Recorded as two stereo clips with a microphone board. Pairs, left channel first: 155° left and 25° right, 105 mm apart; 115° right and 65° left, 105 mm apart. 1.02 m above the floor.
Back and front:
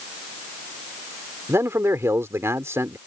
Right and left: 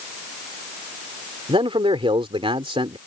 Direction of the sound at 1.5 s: 40° left.